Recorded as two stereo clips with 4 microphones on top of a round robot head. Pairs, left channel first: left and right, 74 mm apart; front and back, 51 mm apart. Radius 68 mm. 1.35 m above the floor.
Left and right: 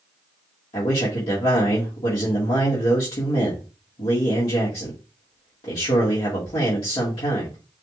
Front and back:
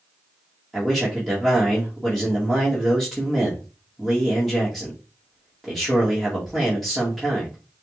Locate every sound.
0.7 s a man speaking: 90° left, 1.8 m